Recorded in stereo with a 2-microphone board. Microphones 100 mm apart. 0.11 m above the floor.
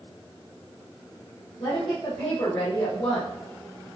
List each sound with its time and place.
1.6 s a woman speaking: 70° left (ahead or behind), 3.5 m